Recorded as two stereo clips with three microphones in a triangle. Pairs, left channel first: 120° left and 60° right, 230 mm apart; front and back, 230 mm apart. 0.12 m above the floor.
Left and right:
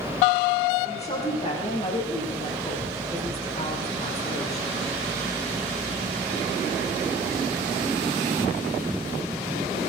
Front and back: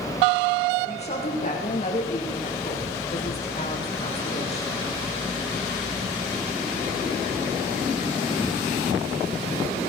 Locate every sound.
0.8 s a woman speaking: 60° left, 8 m